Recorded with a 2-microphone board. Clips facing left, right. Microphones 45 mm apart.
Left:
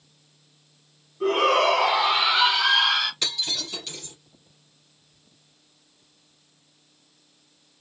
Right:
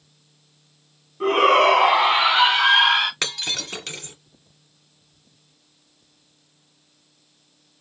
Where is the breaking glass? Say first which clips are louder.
Right 3 dB; 65° right (ahead or behind), 2 m.